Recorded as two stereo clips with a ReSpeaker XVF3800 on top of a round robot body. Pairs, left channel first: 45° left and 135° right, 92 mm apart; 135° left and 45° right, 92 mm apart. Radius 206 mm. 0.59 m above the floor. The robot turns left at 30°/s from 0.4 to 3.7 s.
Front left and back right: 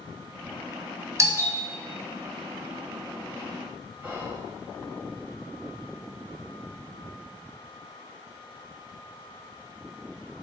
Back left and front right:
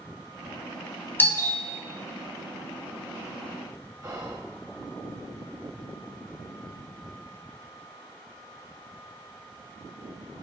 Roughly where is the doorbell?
Behind.